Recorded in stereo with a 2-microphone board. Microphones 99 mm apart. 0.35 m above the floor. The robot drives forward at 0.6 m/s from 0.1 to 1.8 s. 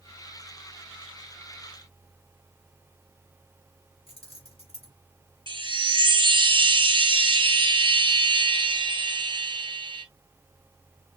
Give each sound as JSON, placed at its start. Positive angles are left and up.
{"t": 4.1, "sound": "keys jangling", "side_deg": 80, "distance_m": 3.0}
{"t": 5.5, "sound": "a chime", "side_deg": -55, "distance_m": 0.9}